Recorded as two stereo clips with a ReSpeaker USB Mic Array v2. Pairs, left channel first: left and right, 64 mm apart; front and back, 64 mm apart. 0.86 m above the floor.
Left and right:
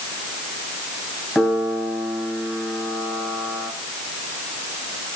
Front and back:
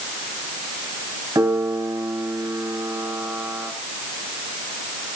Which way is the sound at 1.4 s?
170° left.